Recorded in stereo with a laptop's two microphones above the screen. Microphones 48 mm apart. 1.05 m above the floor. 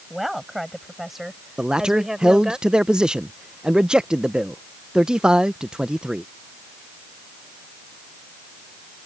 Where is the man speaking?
20° right (ahead or behind).